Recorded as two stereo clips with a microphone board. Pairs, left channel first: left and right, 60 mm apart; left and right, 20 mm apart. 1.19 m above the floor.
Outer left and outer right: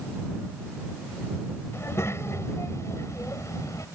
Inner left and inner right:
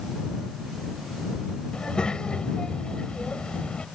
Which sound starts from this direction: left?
A child speaking, at 1.7 s.